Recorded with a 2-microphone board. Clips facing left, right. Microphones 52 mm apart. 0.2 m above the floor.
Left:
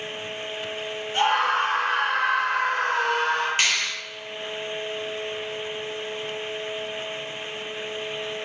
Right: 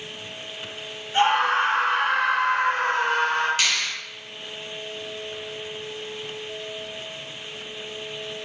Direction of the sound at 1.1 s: 40° right (ahead or behind).